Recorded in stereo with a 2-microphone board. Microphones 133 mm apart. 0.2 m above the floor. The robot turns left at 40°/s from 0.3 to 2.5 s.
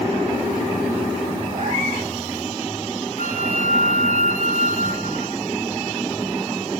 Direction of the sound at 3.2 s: 75° right (ahead or behind).